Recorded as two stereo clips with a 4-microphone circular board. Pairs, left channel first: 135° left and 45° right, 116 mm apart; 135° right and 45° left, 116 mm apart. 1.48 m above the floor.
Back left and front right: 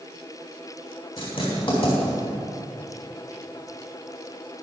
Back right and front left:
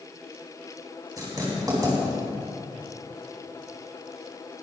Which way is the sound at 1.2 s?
100° left.